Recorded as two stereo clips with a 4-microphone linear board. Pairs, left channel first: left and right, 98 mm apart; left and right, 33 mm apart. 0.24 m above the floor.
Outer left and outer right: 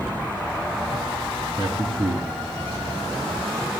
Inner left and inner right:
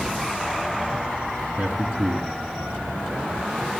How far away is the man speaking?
About 2.5 m.